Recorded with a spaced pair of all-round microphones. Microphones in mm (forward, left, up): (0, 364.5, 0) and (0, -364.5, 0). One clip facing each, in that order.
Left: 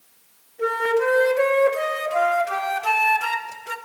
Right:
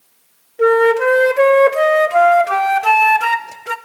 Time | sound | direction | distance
0.6 | a flute | 80° right | 0.6 m